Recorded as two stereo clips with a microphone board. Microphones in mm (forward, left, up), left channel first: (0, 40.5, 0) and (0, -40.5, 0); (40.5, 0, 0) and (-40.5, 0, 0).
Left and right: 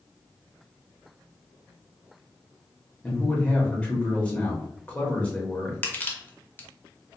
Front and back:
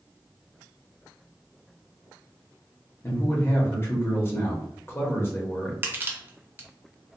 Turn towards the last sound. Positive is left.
turn(degrees=140)